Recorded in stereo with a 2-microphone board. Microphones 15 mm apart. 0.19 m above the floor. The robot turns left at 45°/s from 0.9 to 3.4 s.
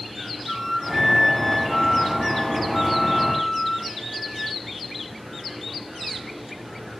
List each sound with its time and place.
0.5 s a flute: 175° right, 2.5 m; by 4.6 s 75° left, 2.5 m